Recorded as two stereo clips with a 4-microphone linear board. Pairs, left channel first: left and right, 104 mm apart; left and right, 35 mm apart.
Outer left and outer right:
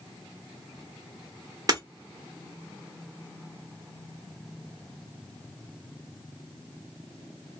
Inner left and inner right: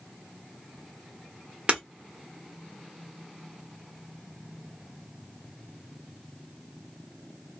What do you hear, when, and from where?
1.7 s breaking glass: 40° right (ahead or behind), 1.2 m